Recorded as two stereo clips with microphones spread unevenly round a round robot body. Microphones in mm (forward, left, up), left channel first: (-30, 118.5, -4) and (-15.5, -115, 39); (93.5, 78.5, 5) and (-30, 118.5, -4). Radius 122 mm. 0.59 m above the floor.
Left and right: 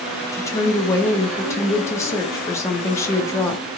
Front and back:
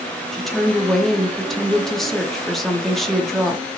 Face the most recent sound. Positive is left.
turn(degrees=75)